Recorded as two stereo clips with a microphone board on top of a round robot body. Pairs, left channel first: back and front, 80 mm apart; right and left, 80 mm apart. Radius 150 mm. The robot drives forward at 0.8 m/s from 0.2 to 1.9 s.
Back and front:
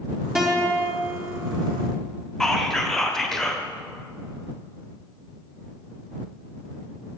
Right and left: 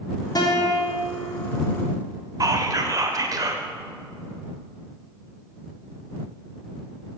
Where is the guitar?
80° right, 1.6 m; by 1.2 s 115° right, 1.7 m.